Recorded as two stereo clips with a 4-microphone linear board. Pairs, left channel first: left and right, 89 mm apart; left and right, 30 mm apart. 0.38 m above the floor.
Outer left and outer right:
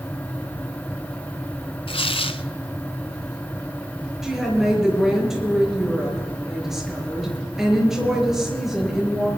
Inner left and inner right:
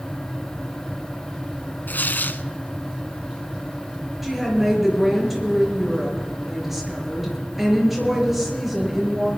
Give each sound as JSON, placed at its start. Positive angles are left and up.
{"t": 1.9, "sound": "tearing paper", "side_deg": 75, "distance_m": 0.7}
{"t": 4.2, "sound": "a woman speaking", "side_deg": -5, "distance_m": 5.5}